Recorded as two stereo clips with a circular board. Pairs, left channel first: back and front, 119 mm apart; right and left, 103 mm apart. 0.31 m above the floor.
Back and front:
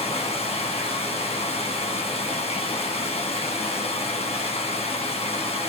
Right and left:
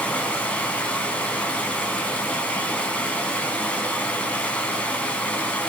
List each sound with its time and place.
0.0 s running water: 165° right, 2 m